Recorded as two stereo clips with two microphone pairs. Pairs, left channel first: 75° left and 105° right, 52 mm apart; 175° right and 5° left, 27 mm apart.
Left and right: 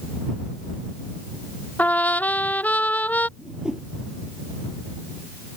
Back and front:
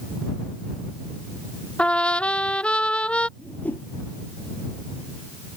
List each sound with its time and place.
1.8 s a trumpet: 135° left
3.4 s a whoosh: straight behind